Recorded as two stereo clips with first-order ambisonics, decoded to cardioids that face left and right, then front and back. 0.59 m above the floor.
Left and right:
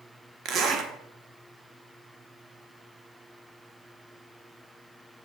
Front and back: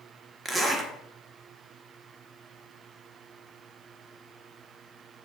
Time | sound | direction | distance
0.5 | a zipper | 110° right | 0.8 m